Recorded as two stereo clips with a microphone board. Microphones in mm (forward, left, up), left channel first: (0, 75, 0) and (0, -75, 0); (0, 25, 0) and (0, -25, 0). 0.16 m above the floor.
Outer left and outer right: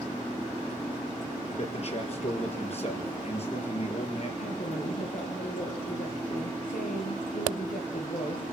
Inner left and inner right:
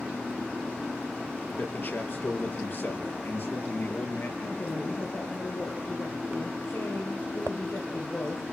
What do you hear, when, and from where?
1.6 s a man speaking: 45° left (ahead or behind), 4.5 m
4.4 s a woman speaking: 70° left (ahead or behind), 3.5 m